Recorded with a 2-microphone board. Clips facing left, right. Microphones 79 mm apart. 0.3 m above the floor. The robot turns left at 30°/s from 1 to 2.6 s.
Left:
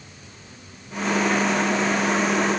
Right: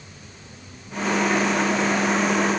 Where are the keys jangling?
No keys jangling in this recording.